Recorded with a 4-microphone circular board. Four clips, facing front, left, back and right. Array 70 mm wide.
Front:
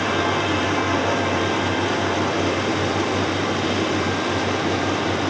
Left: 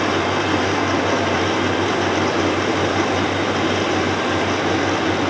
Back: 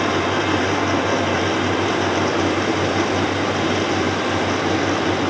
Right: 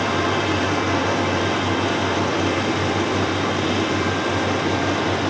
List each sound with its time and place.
Only background noise.